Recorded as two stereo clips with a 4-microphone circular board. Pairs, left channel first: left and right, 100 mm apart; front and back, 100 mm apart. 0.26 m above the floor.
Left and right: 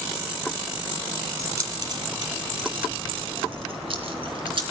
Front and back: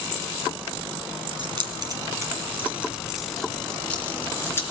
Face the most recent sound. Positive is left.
turn(degrees=-65)